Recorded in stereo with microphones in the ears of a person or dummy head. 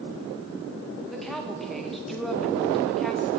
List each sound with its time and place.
1.1 s a woman speaking: centre (ahead or behind), 1.1 m